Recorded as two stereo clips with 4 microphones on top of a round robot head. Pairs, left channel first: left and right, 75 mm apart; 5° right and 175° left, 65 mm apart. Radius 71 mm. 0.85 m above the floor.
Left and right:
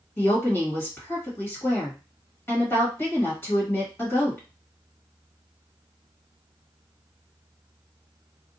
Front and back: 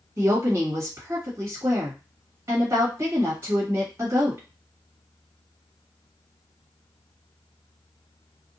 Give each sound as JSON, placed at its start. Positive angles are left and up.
{"t": 0.2, "sound": "a woman speaking", "azimuth_deg": 145, "distance_m": 1.5}